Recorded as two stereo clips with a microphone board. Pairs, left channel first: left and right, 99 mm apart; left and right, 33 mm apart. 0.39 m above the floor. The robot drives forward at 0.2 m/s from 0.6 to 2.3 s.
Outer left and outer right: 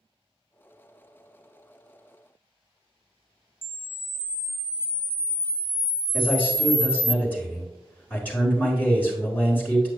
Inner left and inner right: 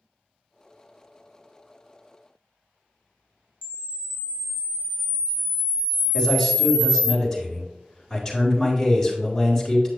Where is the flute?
No flute in this recording.